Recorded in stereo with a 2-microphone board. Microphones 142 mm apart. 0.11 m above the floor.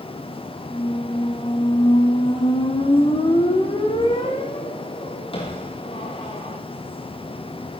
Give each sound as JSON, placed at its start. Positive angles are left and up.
{"t": 0.7, "sound": "a squeak", "side_deg": 40, "distance_m": 2.5}